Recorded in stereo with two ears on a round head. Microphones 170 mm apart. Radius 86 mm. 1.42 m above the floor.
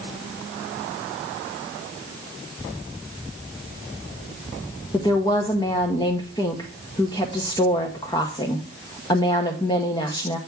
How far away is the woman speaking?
About 0.8 m.